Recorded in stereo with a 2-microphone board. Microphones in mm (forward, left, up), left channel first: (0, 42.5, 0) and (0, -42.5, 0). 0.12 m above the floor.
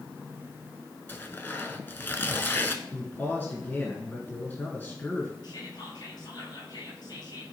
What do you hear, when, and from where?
1.1 s tearing paper: 25° left (ahead or behind), 0.9 m
2.9 s a man speaking: 25° left (ahead or behind), 1.6 m
5.4 s whispering: 55° left (ahead or behind), 2.5 m